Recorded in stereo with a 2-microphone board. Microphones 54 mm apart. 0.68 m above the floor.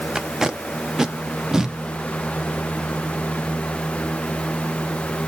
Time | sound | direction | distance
0.1 | tape being pulled | 10° right (ahead or behind) | 0.6 m